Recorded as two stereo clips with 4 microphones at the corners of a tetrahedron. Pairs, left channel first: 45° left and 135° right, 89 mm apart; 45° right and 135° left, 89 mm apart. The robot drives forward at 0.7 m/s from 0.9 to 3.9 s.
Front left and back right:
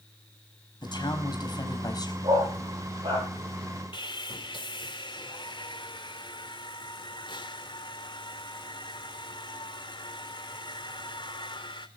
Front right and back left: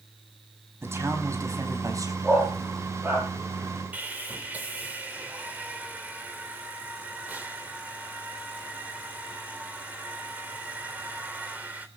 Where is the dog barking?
155° right, 8.5 m.